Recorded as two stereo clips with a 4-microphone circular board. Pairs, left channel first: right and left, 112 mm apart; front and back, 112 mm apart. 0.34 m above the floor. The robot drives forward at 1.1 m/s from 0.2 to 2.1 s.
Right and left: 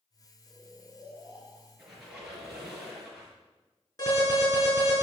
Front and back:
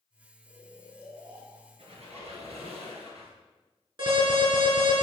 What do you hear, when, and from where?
0.5 s snoring: 130° right, 3 m; by 1.7 s 145° right, 4 m
1.8 s a squeak: 175° left, 3 m
4.0 s an alarm: 145° right, 5 m